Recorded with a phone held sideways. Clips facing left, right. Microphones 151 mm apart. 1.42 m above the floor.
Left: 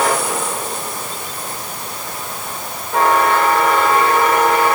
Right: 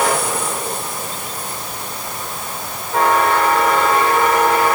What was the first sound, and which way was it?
Only background noise.